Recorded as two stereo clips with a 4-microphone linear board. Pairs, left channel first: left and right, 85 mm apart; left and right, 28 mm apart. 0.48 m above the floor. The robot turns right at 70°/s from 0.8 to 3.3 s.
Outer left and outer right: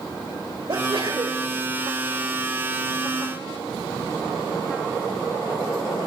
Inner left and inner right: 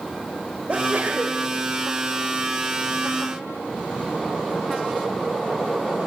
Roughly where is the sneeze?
Right.